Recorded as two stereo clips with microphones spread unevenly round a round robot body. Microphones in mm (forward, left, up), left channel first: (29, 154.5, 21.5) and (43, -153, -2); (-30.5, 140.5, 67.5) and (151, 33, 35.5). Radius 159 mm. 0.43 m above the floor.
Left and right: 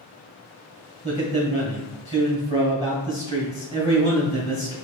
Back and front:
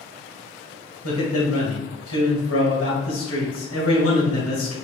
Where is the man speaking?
165° left, 2 m.